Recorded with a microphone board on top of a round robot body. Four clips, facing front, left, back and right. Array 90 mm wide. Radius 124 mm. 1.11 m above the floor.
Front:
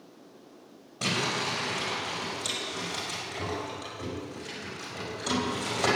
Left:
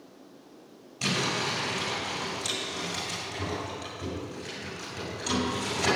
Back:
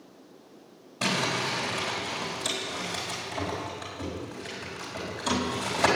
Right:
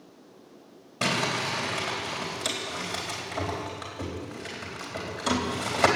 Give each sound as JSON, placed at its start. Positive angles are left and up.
{"t": 1.0, "sound": "crumpling", "azimuth_deg": -95, "distance_m": 4.0}